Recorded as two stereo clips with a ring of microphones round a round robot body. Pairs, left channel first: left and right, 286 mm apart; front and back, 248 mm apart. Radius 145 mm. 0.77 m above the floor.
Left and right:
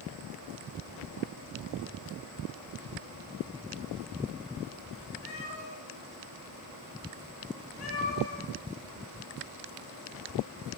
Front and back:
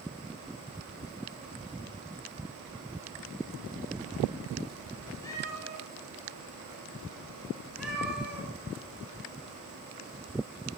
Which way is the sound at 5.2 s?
75° left.